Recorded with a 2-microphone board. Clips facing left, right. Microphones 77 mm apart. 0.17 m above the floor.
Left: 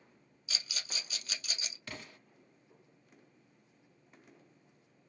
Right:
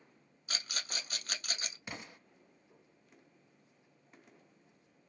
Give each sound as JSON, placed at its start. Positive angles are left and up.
{"t": 0.5, "sound": "a rattle", "side_deg": -50, "distance_m": 0.6}
{"t": 1.9, "sound": "an explosion", "side_deg": -15, "distance_m": 0.9}